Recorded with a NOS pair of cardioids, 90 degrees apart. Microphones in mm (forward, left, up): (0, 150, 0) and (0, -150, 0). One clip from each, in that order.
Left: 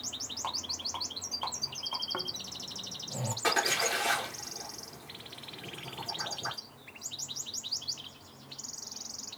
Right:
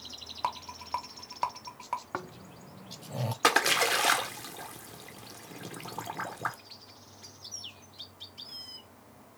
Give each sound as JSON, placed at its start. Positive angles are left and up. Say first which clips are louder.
{"t": 0.4, "sound": "a rattle", "louder": "right 2 dB", "azimuth_deg": -45, "distance_m": 1.2}
{"t": 2.1, "sound": "snoring", "louder": "left 3 dB", "azimuth_deg": -15, "distance_m": 0.5}
{"t": 3.4, "sound": "a splash", "louder": "right 4 dB", "azimuth_deg": -65, "distance_m": 1.2}